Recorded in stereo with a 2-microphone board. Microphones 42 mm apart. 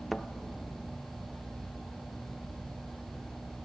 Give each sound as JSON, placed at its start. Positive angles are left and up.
{"t": 0.1, "sound": "a thud", "side_deg": 5, "distance_m": 0.9}